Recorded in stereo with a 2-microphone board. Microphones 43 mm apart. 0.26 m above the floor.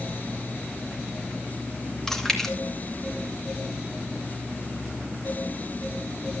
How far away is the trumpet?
I don't hear a trumpet.